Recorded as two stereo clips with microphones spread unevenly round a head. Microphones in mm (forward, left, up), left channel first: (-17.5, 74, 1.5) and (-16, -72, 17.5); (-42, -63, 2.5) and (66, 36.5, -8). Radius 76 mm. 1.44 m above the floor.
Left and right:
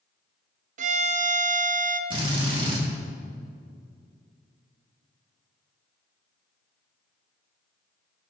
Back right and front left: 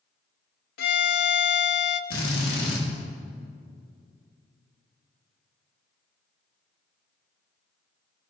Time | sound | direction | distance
0.8 | a violin | 125° right | 0.5 m
2.1 | a drill | 140° right | 1.9 m